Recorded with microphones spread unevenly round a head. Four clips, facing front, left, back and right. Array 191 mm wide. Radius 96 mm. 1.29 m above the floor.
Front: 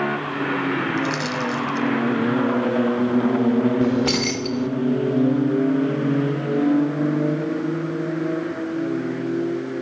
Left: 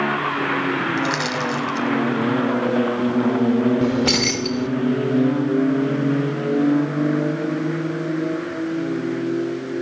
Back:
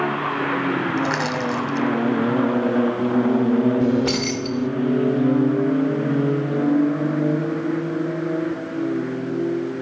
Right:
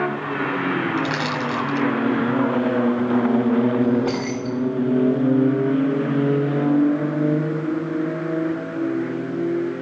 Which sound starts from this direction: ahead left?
Keys jangling, at 3.8 s.